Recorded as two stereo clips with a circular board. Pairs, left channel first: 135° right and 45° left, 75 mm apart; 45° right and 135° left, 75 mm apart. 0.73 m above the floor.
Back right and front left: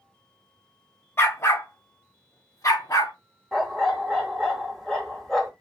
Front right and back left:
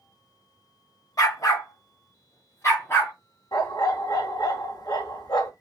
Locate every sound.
1.2 s a dog barking: 80° right, 1.3 m; by 3.1 s 95° right, 2.5 m
3.5 s a dog barking: 50° right, 1.4 m